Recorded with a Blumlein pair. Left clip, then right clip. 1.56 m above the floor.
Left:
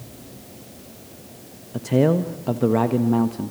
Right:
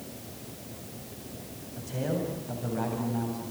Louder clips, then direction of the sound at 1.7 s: Left 13 dB; 40° left.